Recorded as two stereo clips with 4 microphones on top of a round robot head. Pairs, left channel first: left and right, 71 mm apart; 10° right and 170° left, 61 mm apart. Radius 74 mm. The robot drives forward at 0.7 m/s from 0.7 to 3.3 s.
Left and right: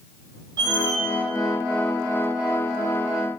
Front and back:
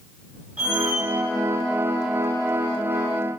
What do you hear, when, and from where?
0.6 s a squeak: 115° right, 0.7 m; by 1.0 s 130° right, 0.8 m